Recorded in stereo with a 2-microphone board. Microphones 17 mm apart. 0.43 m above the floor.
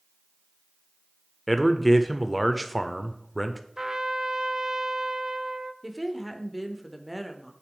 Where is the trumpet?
40° right (ahead or behind), 0.5 m.